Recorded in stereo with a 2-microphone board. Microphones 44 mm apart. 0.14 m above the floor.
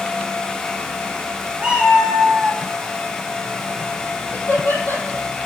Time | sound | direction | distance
1.6 | a cat meowing | 20° right (ahead or behind) | 3.5 m
4.3 | laughter | 55° left (ahead or behind) | 5 m